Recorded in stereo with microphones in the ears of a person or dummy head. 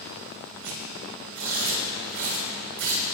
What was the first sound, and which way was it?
Tearing paper, 60° right (ahead or behind).